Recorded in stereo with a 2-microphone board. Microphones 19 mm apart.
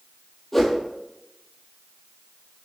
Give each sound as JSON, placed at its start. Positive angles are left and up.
{"t": 0.5, "sound": "a whoosh", "side_deg": 20, "distance_m": 0.9}